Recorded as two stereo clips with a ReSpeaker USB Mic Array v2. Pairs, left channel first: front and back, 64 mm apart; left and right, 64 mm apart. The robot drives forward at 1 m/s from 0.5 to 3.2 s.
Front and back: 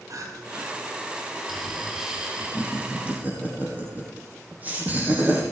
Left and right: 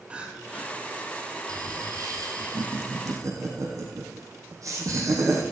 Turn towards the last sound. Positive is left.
turn(degrees=-115)